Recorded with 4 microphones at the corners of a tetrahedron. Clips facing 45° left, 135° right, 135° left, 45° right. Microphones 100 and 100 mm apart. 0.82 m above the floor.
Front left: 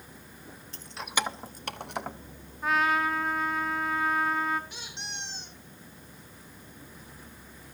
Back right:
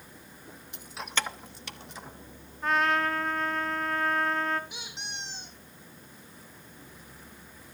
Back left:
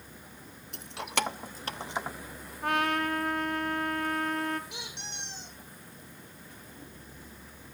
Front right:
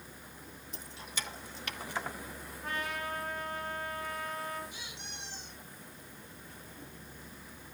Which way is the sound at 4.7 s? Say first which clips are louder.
Even, back left 4 dB; 140° left.